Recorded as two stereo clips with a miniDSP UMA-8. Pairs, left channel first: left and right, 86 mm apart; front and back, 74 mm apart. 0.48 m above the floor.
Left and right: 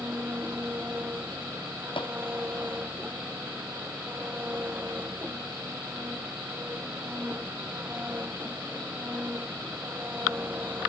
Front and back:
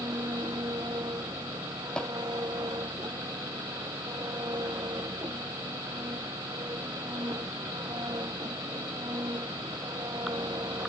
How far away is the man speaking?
I don't hear a man speaking.